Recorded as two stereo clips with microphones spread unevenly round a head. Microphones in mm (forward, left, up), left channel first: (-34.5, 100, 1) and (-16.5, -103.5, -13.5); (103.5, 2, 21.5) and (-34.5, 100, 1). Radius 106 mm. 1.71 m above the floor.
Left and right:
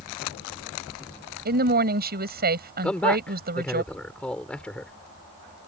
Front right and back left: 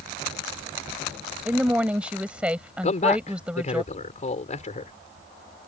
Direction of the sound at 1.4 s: 130° right.